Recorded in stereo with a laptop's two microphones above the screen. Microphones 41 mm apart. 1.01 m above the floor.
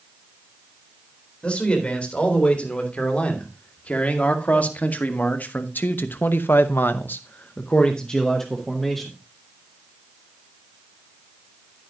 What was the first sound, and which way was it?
A man speaking, 30° left (ahead or behind).